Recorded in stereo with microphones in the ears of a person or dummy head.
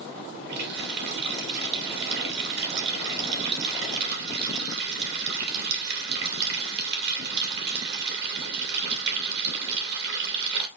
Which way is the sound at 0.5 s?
60° right (ahead or behind).